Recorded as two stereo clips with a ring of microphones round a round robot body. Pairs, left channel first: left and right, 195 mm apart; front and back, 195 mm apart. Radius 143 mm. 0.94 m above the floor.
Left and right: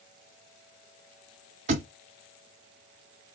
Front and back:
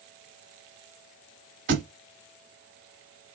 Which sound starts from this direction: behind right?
A thud, at 1.7 s.